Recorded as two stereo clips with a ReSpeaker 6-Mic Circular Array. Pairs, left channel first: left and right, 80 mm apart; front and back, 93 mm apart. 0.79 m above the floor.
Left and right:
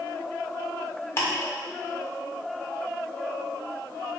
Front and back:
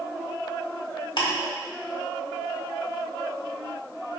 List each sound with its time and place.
1.2 s ticking: 30° left, 1.7 m